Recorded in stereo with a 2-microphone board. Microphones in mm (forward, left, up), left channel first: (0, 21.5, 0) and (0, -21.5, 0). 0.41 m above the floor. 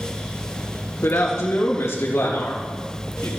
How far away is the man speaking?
About 4 m.